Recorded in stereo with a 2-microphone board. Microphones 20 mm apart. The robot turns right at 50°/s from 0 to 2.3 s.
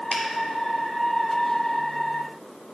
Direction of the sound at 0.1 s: 50° left (ahead or behind).